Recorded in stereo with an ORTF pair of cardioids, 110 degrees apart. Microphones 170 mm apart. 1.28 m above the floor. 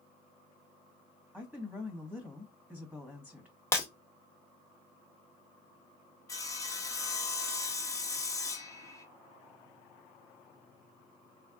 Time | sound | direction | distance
1.3 | a woman speaking | straight ahead | 1.1 m
3.7 | breaking glass | 15° left | 1.1 m
6.3 | sawing | 20° left | 0.8 m